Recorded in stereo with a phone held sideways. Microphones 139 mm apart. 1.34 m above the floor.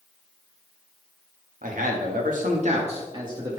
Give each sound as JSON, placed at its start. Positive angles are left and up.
{"t": 1.6, "sound": "a man speaking", "side_deg": -75, "distance_m": 2.0}